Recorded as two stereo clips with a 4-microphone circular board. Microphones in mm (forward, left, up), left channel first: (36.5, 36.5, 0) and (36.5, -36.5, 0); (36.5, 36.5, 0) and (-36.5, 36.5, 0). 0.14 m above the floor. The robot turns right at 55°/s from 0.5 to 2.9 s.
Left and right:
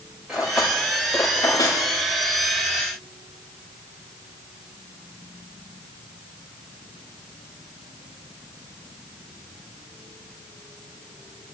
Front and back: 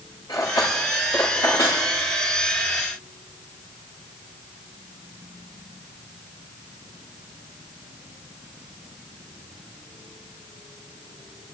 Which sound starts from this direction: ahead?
Cutlery clinking, at 0.3 s.